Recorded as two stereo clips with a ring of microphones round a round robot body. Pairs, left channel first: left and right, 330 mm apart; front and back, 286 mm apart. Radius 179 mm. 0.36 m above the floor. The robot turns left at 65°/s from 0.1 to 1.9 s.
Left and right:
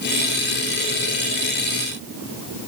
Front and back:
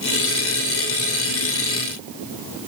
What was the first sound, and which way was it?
Only background noise.